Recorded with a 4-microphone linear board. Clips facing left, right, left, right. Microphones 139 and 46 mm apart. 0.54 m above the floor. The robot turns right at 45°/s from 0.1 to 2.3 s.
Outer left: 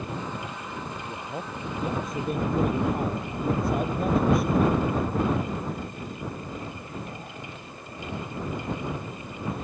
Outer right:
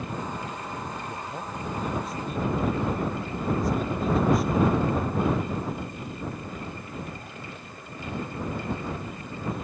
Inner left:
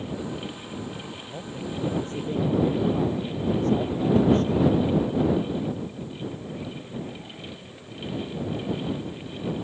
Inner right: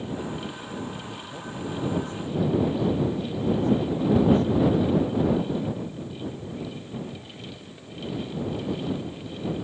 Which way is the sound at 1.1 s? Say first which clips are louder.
Even, even; 5° left.